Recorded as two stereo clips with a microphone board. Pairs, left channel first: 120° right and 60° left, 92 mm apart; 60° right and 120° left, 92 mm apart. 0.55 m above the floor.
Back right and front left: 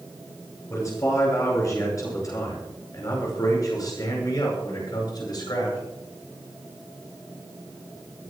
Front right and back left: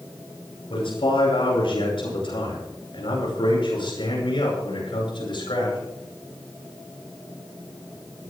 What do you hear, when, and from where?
0.7 s a man speaking: 65° right, 9.5 m; by 5.8 s 80° right, 9 m